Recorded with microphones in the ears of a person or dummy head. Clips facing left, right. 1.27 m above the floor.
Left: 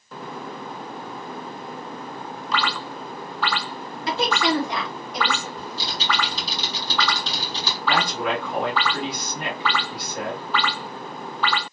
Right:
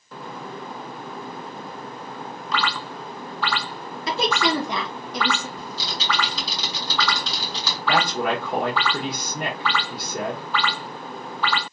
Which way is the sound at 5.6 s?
70° right (ahead or behind).